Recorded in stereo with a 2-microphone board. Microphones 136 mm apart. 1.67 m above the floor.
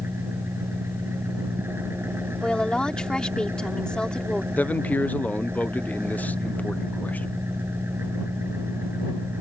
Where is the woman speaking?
5° left (ahead or behind).